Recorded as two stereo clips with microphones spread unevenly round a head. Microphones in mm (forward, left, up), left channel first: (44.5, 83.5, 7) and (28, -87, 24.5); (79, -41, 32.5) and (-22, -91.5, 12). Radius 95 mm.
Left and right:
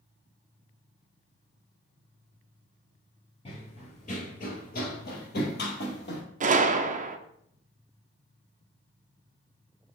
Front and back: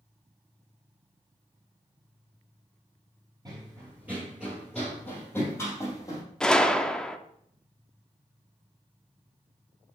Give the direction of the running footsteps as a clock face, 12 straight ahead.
7 o'clock.